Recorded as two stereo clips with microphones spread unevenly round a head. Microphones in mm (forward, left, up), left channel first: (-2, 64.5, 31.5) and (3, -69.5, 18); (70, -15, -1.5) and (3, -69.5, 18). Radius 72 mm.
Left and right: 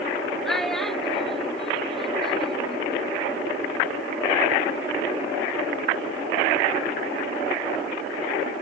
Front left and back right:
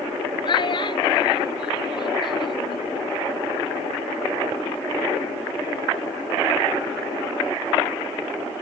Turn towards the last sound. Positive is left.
turn(degrees=5)